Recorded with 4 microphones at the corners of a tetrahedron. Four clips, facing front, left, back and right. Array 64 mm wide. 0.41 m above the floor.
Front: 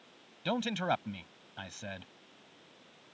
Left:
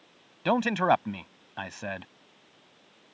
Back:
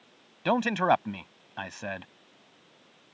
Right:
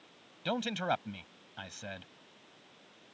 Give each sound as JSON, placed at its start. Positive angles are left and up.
{"t": 0.5, "sound": "a man speaking", "azimuth_deg": 135}